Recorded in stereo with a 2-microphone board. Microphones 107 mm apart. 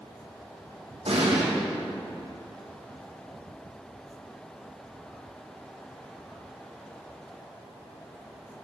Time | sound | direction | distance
1.1 | an explosion | 75° right (ahead or behind) | 4 m